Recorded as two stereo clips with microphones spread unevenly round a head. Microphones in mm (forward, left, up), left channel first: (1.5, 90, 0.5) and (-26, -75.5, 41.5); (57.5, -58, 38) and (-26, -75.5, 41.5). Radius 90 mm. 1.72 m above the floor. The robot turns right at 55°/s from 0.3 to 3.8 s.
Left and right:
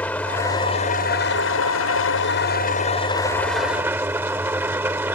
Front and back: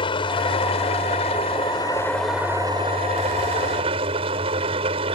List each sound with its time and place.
0.0 s an engine running: 5° right; by 5.2 s 175° right